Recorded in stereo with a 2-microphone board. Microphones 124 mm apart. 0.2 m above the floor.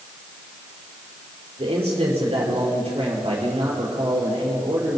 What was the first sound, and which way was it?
A man speaking, 50° right (ahead or behind).